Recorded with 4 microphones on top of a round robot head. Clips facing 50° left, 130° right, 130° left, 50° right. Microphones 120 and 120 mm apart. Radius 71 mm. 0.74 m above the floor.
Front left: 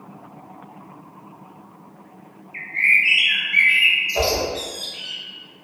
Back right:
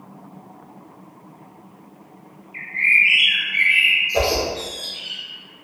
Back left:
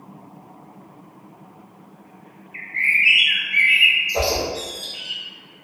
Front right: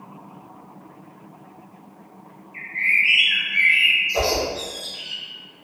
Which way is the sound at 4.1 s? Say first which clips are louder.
Back right 1 dB, even; 140° right.